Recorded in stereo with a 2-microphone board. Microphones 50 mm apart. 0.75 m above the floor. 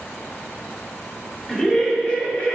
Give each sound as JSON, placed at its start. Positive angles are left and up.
{"t": 1.5, "sound": "laughter", "side_deg": 20, "distance_m": 1.6}